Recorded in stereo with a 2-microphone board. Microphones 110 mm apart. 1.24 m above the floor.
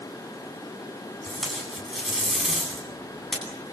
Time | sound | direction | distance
1.2 | tape being pulled | centre (ahead or behind) | 9.5 m